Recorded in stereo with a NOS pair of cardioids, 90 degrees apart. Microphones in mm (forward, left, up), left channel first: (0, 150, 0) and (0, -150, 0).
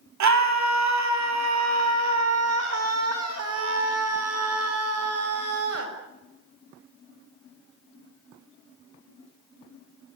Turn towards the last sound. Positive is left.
turn(degrees=-50)